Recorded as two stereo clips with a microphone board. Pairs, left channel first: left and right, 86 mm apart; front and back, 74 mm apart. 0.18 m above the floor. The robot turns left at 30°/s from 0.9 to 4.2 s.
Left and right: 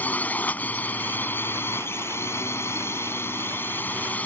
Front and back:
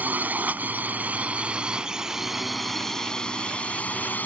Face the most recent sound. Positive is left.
turn(degrees=40)